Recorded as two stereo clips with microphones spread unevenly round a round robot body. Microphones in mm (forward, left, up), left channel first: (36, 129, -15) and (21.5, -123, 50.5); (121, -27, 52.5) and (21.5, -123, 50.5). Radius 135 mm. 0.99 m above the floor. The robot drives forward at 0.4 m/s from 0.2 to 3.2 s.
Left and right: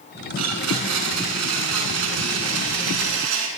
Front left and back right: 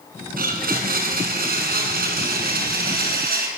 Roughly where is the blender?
Behind right.